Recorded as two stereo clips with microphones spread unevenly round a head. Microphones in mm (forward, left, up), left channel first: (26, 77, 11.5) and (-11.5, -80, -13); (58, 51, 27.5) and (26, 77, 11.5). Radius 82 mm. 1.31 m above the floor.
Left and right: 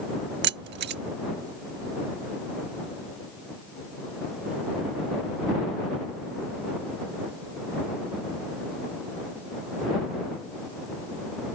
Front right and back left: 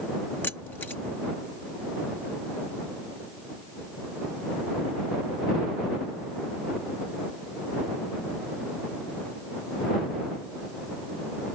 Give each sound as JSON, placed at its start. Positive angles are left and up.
{"t": 0.4, "sound": "keys jangling", "azimuth_deg": -85}